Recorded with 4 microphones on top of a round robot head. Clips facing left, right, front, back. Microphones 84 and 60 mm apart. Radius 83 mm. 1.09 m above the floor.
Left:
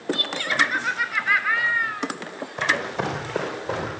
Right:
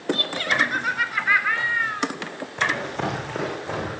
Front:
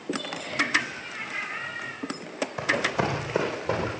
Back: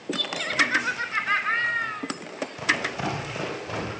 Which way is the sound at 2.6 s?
10° left.